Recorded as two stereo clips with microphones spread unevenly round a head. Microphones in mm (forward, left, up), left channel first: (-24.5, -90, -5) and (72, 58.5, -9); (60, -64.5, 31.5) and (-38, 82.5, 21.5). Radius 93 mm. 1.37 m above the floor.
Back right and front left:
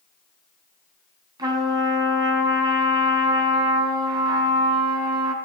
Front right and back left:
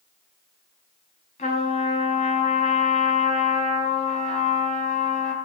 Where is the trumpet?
10° right, 3 m.